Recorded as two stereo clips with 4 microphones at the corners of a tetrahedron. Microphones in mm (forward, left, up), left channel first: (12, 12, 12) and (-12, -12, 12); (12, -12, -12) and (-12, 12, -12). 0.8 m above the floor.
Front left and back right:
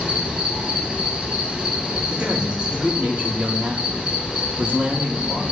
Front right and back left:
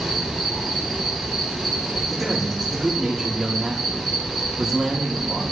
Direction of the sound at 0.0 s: 145° right.